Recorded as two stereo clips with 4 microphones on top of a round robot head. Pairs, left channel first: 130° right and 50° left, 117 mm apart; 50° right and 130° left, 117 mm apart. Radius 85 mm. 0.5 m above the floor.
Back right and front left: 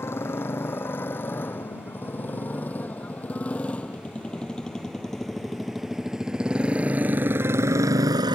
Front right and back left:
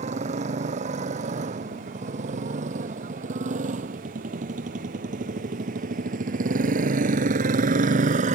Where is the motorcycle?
160° left; by 8.3 s 105° left.